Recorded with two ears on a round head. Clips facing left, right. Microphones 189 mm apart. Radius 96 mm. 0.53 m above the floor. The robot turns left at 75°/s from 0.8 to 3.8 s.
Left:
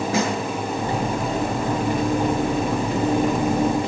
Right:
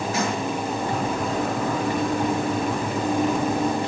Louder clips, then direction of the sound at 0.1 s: Left 4 dB; 70° left (ahead or behind).